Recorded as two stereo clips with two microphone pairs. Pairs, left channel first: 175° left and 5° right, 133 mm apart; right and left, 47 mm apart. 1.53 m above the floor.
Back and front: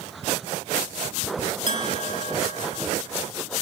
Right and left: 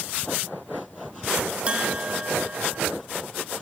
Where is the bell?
155° left, 1.9 m.